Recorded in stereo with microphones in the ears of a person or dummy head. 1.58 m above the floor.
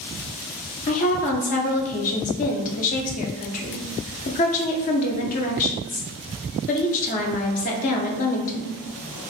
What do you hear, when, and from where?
0.9 s a woman speaking: 40° left (ahead or behind), 0.5 m